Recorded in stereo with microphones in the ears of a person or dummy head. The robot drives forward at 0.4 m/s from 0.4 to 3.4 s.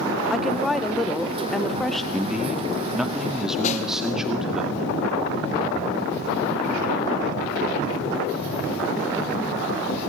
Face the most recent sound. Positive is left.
turn(degrees=45)  # may be behind; listen again after turning